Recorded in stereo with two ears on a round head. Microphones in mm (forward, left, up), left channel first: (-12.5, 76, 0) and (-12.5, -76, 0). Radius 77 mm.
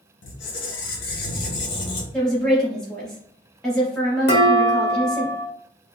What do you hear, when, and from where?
0.2 s a squeak: 75° left (ahead or behind), 0.9 m
2.1 s a woman speaking: 5° left (ahead or behind), 1.2 m
4.3 s dishes clattering: 70° left (ahead or behind), 1.5 m